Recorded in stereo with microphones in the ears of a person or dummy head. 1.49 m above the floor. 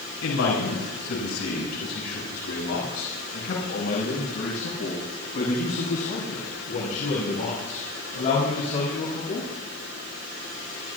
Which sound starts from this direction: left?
A man speaking, at 0.2 s.